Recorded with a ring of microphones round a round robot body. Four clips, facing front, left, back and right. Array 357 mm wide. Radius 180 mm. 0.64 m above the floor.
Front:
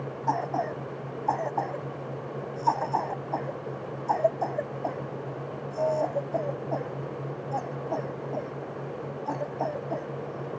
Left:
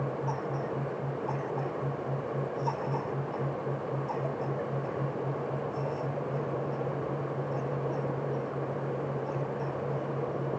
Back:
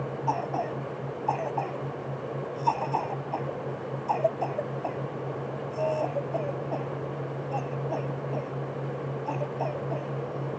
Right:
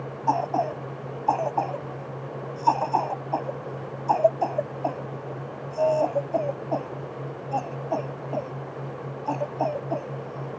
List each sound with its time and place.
0.3 s a cough: 80° right